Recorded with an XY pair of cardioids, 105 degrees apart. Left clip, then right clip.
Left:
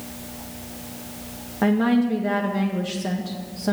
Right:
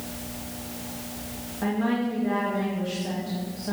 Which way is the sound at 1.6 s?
65° left.